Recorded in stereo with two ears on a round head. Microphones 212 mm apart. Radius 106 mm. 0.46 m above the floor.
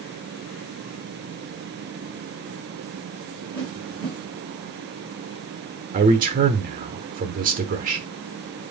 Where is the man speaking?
35° right (ahead or behind), 0.9 m.